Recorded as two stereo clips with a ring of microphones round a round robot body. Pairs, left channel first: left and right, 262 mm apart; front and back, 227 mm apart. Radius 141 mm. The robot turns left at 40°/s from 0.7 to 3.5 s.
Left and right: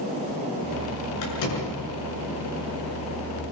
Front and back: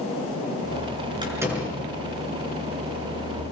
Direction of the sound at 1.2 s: 110° left.